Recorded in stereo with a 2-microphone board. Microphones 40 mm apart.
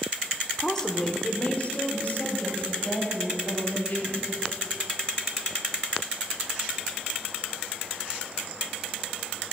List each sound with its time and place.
0.6 s a woman speaking: 5° left (ahead or behind), 0.8 m; by 4.3 s 50° left (ahead or behind), 2.5 m